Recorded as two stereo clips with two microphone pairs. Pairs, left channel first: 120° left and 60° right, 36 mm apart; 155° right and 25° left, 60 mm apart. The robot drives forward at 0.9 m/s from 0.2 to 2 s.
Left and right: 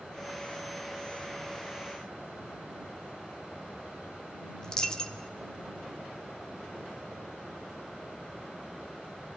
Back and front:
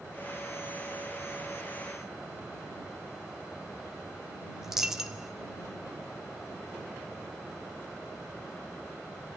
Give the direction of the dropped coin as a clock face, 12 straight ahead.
9 o'clock.